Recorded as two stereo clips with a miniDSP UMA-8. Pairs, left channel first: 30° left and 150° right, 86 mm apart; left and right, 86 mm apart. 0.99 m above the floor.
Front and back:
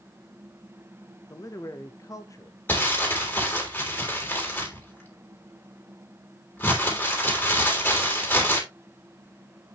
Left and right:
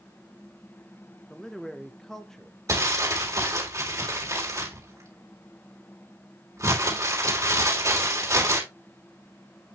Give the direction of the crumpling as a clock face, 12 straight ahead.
1 o'clock.